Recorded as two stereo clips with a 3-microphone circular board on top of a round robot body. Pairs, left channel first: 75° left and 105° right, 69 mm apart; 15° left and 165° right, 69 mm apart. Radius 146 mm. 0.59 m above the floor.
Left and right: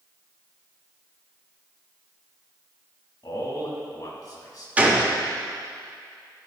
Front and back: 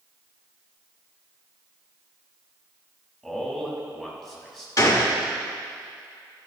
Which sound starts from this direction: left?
A man speaking, at 3.2 s.